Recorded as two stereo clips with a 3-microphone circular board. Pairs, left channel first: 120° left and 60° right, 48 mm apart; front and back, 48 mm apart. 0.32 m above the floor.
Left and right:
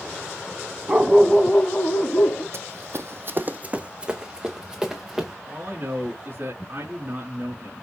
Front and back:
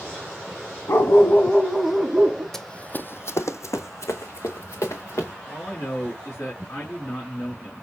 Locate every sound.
0.9 s a dog barking: 10° right, 1.0 m; by 2.4 s 105° left, 1.8 m
2.5 s running footsteps: 80° right, 0.8 m; by 5.3 s 20° left, 2.5 m
5.5 s a man speaking: 20° right, 4 m